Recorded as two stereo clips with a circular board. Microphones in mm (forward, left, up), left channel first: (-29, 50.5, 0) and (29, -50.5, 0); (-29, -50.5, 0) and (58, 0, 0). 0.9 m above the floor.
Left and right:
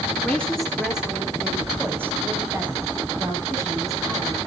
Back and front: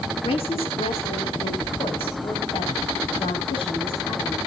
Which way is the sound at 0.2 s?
165° right.